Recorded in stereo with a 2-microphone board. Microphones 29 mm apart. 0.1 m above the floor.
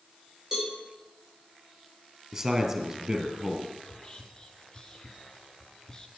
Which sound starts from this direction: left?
Whispering, at 3.9 s.